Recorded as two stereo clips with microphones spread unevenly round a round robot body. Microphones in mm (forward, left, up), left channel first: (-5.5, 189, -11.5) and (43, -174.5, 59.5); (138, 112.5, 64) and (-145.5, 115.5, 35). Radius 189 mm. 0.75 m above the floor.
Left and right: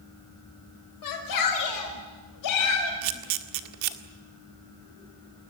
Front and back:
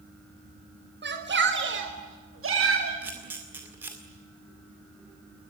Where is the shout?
130° left, 3.5 m; by 2.9 s 140° left, 5 m.